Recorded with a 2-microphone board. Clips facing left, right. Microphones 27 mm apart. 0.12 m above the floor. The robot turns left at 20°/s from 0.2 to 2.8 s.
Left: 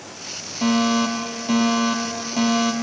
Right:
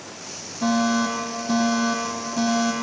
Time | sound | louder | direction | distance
0.6 | a fire alarm | left 2 dB | 85° left | 5 m